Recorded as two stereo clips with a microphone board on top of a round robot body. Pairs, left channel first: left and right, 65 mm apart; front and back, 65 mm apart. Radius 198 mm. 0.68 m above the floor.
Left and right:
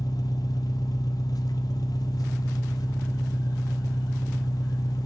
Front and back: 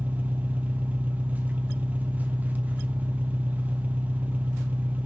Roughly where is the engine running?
Behind left.